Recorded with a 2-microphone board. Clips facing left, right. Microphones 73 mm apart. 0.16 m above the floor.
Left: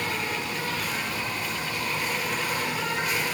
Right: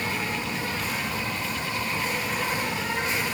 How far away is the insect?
About 5.5 m.